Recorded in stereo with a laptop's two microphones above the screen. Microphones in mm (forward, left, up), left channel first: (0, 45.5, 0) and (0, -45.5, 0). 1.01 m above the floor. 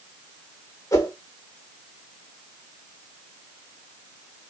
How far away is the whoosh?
About 1.2 m.